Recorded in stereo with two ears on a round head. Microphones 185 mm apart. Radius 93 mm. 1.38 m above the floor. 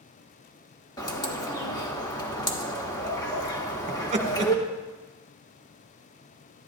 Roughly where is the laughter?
Right.